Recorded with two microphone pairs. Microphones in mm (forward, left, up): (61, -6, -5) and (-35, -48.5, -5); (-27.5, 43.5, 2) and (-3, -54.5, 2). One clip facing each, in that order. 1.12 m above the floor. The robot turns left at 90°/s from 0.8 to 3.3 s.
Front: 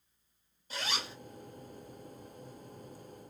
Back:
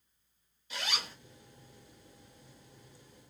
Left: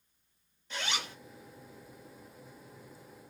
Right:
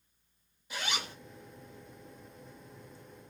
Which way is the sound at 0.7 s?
Straight ahead.